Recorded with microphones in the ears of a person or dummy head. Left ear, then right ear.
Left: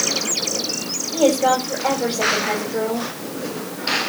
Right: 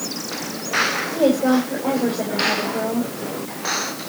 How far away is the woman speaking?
About 7 m.